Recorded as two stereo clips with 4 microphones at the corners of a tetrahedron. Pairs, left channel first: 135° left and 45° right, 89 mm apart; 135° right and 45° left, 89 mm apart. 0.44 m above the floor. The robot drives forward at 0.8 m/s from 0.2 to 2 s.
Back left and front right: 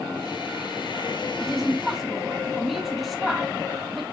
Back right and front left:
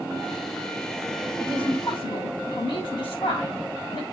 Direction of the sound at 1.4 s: 125° right.